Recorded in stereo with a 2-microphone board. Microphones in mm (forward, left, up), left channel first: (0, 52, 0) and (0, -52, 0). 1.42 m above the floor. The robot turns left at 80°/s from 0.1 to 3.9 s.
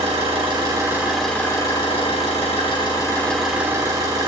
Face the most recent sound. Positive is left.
turn(degrees=-35)